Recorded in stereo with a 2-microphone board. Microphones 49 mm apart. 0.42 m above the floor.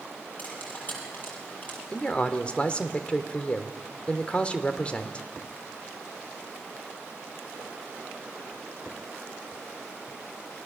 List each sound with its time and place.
0.4 s cutlery clinking: 40° left (ahead or behind), 6 m
1.9 s a man speaking: 25° left (ahead or behind), 1.5 m